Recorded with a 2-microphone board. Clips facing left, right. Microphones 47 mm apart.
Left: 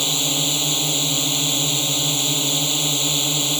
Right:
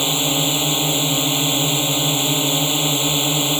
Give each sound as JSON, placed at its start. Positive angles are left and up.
{"t": 0.0, "sound": "a drone", "side_deg": -20}